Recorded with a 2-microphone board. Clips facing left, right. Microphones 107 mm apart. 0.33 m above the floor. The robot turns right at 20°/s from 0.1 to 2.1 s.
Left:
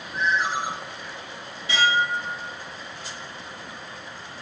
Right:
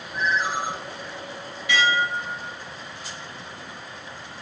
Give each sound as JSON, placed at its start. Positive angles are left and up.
{"t": 0.1, "sound": "a ringtone", "side_deg": 30, "distance_m": 3.0}
{"t": 1.7, "sound": "dishes clattering", "side_deg": 30, "distance_m": 3.5}